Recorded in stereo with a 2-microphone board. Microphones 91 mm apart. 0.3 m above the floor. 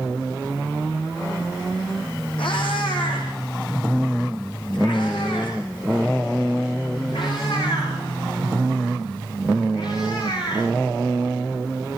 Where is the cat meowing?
70° left (ahead or behind), 9 m; by 10.7 s 55° left (ahead or behind), 18 m.